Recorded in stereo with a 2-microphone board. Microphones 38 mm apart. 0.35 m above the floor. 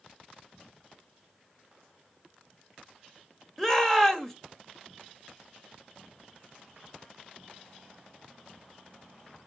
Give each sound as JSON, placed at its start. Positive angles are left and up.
{"t": 3.6, "sound": "a shout", "side_deg": 10, "distance_m": 1.1}